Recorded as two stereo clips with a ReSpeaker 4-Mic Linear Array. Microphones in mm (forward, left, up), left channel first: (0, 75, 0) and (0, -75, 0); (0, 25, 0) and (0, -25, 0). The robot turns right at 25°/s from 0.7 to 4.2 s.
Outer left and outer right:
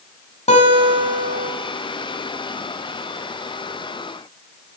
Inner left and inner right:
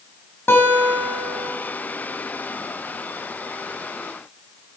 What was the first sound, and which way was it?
A guitar, 50° left (ahead or behind).